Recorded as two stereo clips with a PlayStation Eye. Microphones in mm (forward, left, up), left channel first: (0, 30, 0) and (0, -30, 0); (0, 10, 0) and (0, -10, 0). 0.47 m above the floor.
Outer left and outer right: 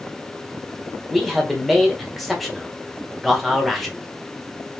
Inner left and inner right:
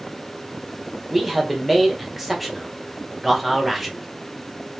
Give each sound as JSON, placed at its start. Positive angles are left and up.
{"t": 1.1, "sound": "a man speaking", "side_deg": 0, "distance_m": 1.5}